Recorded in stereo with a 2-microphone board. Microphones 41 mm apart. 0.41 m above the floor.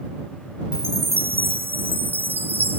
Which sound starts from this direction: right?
A chime, at 0.7 s.